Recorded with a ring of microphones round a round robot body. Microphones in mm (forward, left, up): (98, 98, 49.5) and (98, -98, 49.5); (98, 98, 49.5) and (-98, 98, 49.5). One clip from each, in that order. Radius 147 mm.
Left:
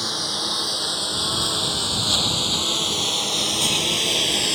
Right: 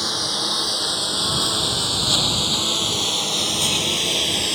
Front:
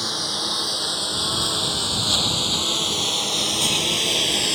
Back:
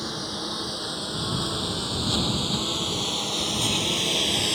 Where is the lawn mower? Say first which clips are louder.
Right 2 dB, front 7 dB; straight ahead; by 4.6 s 35° left.